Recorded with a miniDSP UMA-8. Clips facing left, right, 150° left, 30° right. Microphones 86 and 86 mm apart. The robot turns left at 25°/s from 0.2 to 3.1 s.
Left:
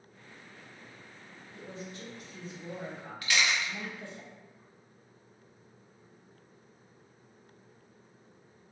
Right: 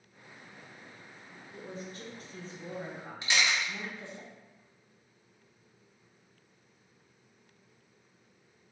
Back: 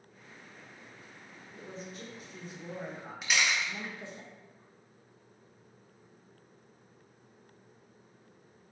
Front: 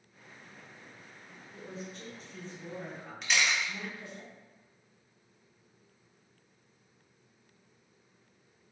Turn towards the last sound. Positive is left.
turn(degrees=-125)